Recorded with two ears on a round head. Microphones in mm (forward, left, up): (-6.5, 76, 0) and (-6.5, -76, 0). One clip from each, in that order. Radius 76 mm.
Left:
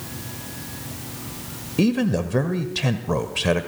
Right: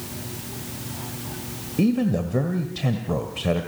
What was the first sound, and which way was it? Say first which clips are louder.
A man speaking: left 2 dB; 50° left (ahead or behind).